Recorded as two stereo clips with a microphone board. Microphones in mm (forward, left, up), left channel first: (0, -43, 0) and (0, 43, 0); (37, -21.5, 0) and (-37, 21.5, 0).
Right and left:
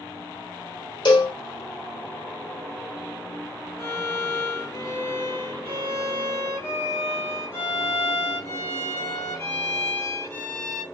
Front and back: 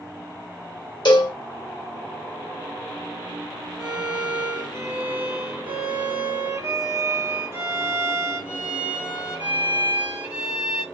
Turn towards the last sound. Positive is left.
turn(degrees=-145)